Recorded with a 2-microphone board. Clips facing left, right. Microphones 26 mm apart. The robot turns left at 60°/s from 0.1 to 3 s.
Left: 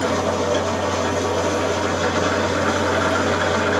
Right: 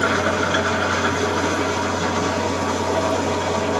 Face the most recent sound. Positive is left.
turn(degrees=120)